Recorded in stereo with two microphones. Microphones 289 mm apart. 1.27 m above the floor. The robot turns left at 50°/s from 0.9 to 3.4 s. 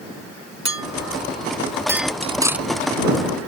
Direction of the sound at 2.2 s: 20° right (ahead or behind).